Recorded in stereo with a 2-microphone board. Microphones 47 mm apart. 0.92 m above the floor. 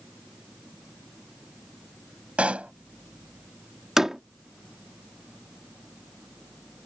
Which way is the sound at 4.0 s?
10° right (ahead or behind).